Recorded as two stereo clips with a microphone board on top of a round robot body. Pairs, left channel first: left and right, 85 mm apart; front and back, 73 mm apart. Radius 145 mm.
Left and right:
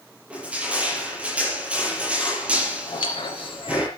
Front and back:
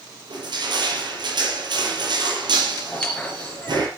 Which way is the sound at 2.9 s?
75° left.